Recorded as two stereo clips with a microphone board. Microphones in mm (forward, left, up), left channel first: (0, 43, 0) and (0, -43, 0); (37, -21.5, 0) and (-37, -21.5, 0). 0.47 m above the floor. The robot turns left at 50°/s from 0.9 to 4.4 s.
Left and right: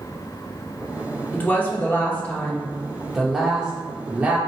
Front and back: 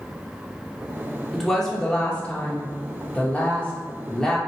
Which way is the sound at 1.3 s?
85° left.